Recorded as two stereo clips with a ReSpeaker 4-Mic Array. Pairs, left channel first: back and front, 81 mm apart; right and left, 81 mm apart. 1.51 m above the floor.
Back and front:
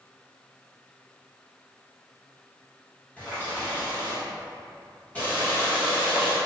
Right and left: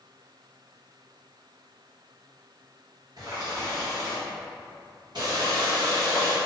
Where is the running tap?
110° left, 2.0 m.